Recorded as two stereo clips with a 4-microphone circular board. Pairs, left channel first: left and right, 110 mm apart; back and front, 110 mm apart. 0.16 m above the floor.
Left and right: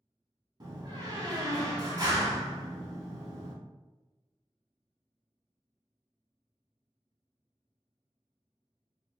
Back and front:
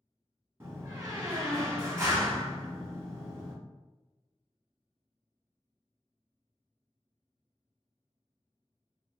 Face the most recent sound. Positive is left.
turn(degrees=-55)